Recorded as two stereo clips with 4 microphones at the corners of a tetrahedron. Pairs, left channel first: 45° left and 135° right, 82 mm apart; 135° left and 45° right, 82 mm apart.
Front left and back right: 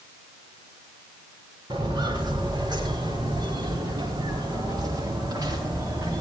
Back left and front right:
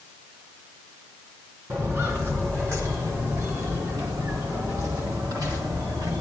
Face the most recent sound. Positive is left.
turn(degrees=-85)